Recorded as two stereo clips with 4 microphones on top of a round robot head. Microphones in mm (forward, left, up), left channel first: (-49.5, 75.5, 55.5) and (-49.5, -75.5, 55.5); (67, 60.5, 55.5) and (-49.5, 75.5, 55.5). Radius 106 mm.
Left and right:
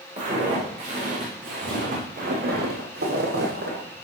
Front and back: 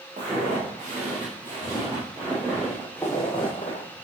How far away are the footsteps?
About 5.5 m.